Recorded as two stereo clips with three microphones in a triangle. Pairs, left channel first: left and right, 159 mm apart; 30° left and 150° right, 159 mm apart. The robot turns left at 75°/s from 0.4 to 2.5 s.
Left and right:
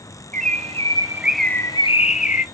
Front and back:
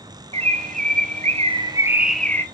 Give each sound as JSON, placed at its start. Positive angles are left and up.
{"t": 0.3, "sound": "a bird", "azimuth_deg": -110, "distance_m": 0.6}